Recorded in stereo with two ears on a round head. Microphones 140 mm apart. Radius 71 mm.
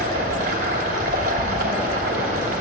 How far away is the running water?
About 2.5 m.